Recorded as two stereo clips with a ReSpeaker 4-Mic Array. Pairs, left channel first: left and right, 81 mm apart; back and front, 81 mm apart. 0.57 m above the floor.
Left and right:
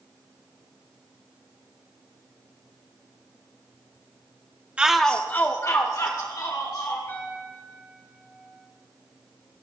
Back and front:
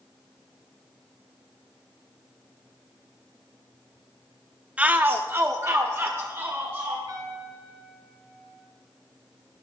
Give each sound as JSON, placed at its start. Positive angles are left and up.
{"t": 4.8, "sound": "a shout", "azimuth_deg": -40, "distance_m": 0.6}
{"t": 7.1, "sound": "a piano", "azimuth_deg": 35, "distance_m": 4.5}